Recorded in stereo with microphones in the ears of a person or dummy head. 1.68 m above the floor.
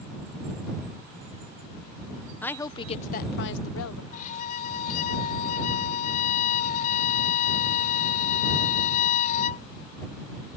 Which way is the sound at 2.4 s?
10° left (ahead or behind).